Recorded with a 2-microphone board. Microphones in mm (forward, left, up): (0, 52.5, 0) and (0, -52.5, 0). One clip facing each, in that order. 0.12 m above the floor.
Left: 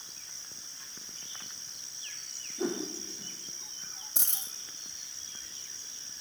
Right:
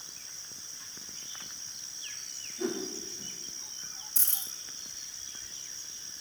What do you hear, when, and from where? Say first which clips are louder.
2.6 s a whoosh: left 1 dB; 40° left (ahead or behind), 5 m
4.2 s a dropped coin: left 3 dB; 80° left, 1.9 m